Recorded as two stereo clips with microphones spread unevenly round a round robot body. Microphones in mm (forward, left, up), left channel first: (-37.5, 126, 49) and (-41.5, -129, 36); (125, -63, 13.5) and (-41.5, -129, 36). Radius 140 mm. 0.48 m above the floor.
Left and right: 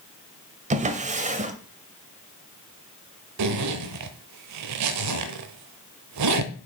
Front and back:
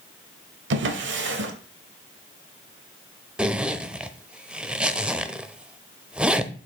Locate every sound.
0.7 s a drawer: 150° right, 0.9 m
3.4 s a zipper: 75° right, 0.8 m